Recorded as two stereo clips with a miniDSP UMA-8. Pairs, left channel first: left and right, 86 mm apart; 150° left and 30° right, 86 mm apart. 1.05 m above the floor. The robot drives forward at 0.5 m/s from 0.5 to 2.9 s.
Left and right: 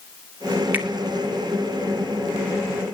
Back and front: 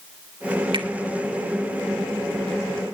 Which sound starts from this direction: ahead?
A finger snap, at 0.7 s.